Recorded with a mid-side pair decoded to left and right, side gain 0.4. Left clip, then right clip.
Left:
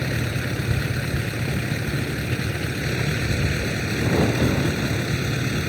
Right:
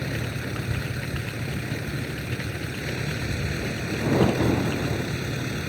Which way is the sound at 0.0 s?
45° left.